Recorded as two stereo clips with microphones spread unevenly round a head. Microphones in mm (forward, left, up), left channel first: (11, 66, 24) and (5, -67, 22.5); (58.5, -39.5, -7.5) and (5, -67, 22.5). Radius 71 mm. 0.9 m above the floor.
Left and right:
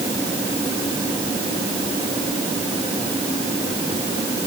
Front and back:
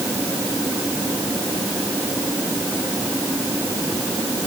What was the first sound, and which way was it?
Only background noise.